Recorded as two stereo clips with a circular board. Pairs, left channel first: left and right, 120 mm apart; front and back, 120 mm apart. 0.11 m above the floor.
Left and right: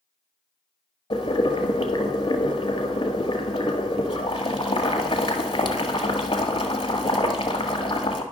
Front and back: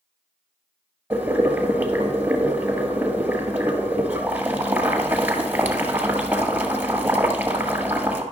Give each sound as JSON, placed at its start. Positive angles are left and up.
{"t": 1.1, "sound": "boiling", "azimuth_deg": 110, "distance_m": 1.3}